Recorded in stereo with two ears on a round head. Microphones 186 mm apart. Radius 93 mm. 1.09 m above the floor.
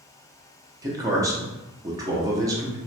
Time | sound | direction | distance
0.8 | a man speaking | 15° right (ahead or behind) | 0.5 m